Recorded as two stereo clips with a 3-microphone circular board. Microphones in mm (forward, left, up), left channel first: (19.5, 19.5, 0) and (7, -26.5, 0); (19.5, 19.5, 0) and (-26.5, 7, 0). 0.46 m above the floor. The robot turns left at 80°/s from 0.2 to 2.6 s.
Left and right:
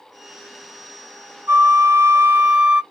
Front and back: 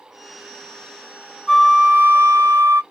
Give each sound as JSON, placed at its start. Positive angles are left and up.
{"t": 1.5, "sound": "a flute", "azimuth_deg": -75, "distance_m": 0.6}